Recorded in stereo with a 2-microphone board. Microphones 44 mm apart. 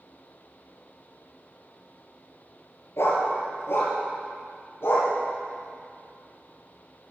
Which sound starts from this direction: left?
A dog barking, at 3.0 s.